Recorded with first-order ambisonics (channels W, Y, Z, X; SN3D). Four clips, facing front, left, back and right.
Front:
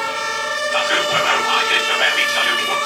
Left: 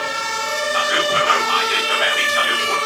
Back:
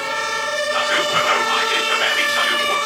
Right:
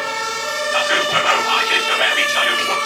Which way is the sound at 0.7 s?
65° right.